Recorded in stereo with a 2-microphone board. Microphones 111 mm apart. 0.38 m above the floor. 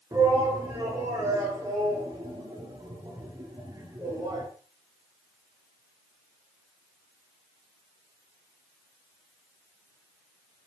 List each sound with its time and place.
0.1 s a shout: 30° right (ahead or behind), 6 m